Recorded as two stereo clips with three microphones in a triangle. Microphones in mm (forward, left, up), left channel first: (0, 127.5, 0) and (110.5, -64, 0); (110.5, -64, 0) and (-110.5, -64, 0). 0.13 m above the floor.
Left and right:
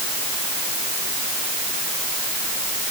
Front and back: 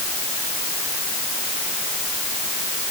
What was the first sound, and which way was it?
Only background noise.